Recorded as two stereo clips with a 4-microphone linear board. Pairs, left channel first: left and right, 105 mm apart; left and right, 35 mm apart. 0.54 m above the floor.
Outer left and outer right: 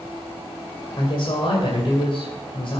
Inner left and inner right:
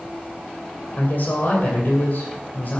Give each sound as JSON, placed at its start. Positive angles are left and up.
{"t": 1.0, "sound": "a woman speaking", "side_deg": 55, "distance_m": 2.5}